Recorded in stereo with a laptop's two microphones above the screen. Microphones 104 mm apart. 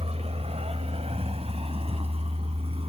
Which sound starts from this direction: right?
A vehicle, at 0.0 s.